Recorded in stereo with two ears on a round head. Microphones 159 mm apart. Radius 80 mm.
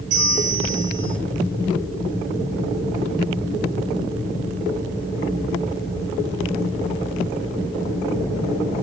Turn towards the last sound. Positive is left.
turn(degrees=-50)  # may be behind; listen again after turning